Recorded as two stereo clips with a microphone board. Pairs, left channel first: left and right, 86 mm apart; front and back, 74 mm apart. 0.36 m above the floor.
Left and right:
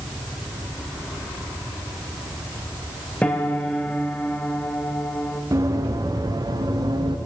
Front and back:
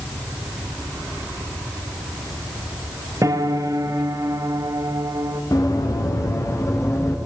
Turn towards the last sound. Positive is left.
turn(degrees=-50)